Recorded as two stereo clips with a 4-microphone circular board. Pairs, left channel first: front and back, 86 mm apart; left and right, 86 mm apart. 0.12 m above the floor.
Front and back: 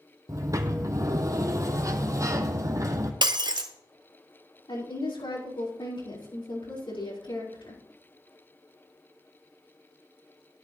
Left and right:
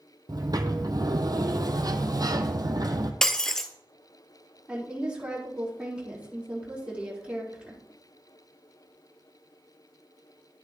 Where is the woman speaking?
15° right, 4.5 m.